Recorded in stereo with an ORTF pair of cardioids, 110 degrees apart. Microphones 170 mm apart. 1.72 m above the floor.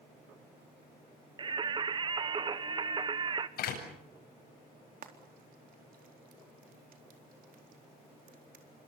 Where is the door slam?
65° left, 8.5 m.